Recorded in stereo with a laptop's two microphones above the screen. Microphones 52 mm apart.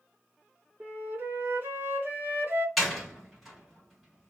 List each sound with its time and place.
0.8 s a flute: 45° right (ahead or behind), 0.9 m
2.8 s a door slam: centre (ahead or behind), 1.6 m